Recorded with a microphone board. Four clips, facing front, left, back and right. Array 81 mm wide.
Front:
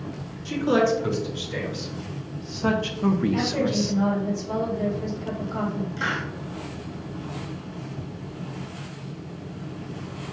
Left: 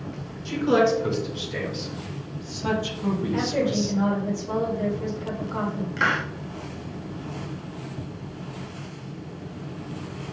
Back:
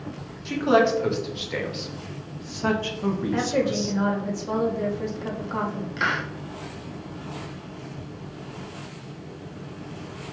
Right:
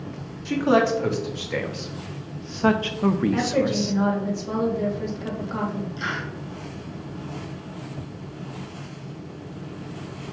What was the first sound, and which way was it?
A man speaking, 125° right.